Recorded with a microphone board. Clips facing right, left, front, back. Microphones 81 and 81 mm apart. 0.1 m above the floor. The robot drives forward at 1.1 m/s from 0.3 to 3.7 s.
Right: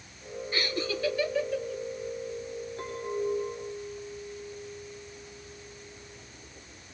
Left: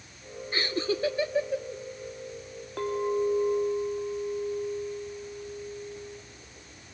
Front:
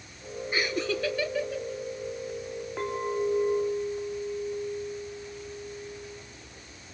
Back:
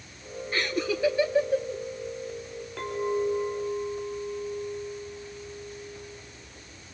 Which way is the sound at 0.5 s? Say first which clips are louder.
Left 3 dB, back 1 dB; 70° left.